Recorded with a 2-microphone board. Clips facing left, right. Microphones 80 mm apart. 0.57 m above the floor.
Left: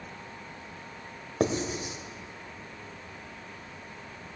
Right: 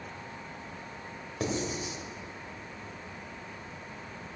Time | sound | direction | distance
1.4 | writing | 50° left (ahead or behind) | 1.1 m